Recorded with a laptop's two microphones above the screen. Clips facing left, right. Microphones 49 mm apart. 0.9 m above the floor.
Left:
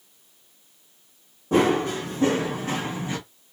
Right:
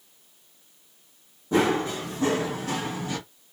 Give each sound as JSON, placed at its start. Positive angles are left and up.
{"t": 1.5, "sound": "running footsteps", "side_deg": 50, "distance_m": 1.5}